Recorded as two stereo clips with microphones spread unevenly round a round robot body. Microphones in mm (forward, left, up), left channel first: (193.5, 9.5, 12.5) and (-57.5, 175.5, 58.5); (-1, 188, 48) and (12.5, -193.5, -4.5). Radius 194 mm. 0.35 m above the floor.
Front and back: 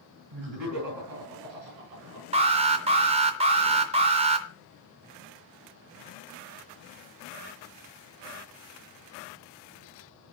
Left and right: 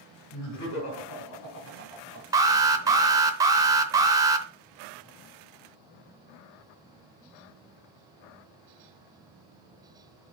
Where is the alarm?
145° right, 0.6 m.